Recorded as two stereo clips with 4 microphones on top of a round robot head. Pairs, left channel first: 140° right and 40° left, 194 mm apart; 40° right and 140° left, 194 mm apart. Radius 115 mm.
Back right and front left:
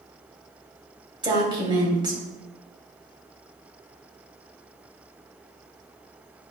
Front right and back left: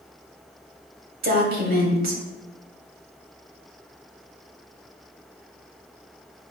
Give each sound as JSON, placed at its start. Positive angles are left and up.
{"t": 1.2, "sound": "a woman speaking", "azimuth_deg": 105, "distance_m": 2.5}